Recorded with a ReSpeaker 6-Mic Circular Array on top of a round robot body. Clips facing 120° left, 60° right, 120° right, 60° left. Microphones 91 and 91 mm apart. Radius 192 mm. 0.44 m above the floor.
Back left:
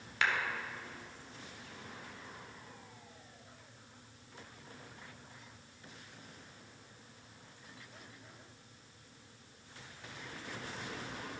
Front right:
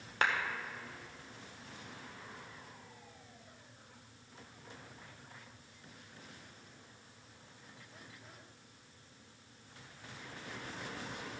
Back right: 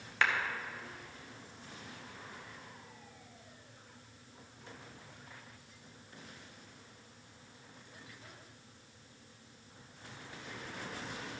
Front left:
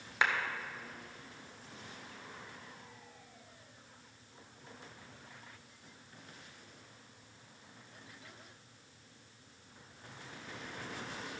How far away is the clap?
About 1.9 m.